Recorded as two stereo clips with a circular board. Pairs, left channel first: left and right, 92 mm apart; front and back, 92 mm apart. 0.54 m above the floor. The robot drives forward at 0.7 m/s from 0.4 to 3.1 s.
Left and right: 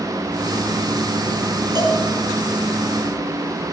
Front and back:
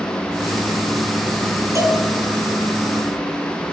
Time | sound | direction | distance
1.8 | a cowbell | 125° right | 2 m